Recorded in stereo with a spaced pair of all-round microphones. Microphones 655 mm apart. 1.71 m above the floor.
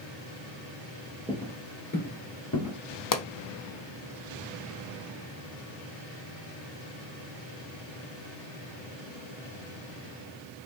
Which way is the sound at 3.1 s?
30° left (ahead or behind).